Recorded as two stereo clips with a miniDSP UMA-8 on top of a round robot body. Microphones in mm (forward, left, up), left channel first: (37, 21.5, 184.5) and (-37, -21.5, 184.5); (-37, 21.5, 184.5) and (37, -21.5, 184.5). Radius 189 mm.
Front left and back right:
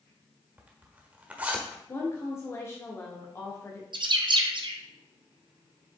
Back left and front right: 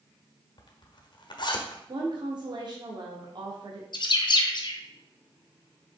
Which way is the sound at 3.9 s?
Straight behind.